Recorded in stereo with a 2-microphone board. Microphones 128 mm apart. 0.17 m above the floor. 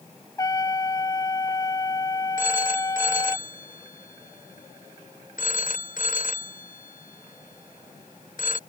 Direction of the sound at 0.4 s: 25° left (ahead or behind).